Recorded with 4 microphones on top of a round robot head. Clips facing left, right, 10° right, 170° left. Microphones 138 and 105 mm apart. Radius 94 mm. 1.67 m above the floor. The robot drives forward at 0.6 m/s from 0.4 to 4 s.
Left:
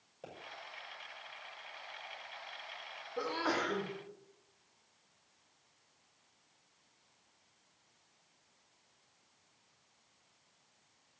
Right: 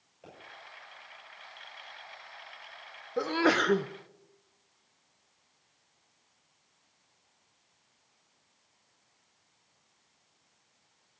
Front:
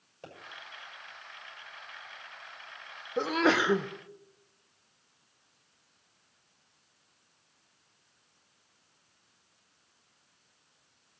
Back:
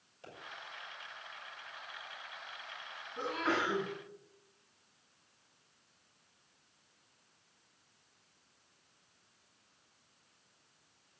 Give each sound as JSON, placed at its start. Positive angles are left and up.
{"t": 0.2, "sound": "a pop", "azimuth_deg": 30, "distance_m": 6.5}
{"t": 3.2, "sound": "a sneeze", "azimuth_deg": -40, "distance_m": 1.0}